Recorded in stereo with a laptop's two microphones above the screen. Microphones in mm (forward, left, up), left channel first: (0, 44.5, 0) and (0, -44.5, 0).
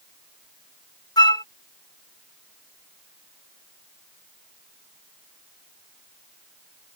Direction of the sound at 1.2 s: 45° left (ahead or behind).